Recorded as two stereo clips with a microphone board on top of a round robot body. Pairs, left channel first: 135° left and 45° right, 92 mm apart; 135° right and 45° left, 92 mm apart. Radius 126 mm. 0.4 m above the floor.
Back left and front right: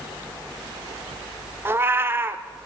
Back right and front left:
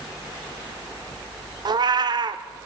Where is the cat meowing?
15° left, 0.7 m.